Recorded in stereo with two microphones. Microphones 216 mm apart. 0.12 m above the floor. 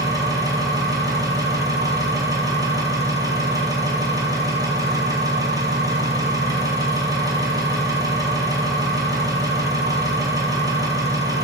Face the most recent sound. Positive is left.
turn(degrees=-15)  # may be behind; listen again after turning